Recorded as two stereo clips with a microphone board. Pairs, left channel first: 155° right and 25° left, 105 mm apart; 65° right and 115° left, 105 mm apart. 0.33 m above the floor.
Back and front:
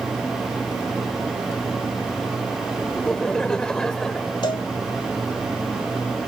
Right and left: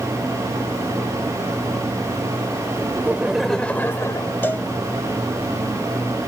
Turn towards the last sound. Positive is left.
turn(degrees=-135)